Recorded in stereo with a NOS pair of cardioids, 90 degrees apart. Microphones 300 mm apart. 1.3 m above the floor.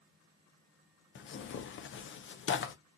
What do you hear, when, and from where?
1.1 s tearing paper: 40° left, 0.7 m